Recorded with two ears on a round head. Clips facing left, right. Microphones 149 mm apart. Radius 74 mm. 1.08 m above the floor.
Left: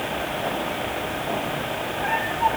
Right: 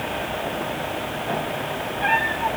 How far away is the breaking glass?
I don't hear breaking glass.